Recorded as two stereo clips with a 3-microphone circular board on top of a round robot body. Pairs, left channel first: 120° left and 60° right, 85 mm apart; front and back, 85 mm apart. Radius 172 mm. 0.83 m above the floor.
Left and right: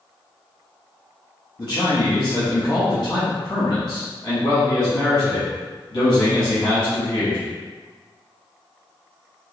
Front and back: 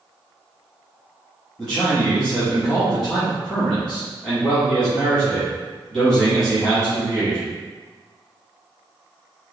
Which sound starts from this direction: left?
A man speaking, at 1.6 s.